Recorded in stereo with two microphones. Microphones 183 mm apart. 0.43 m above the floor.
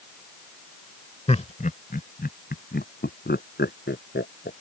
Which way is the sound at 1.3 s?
35° left (ahead or behind).